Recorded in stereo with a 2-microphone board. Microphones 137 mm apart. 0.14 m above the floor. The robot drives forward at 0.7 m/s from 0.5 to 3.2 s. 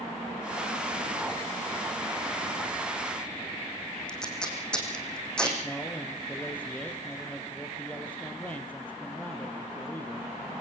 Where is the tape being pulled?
5° left (ahead or behind), 5.5 m.